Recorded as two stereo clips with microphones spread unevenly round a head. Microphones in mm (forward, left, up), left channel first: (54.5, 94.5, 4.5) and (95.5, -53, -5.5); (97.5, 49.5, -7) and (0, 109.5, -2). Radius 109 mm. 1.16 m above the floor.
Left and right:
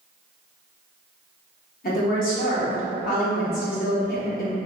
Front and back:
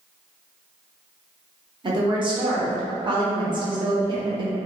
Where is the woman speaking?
110° left, 0.9 m.